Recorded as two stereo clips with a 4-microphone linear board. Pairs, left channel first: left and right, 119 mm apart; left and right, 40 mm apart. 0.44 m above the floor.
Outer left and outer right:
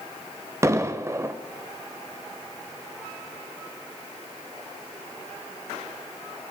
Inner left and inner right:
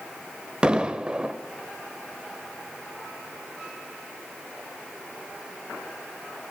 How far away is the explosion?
About 0.8 m.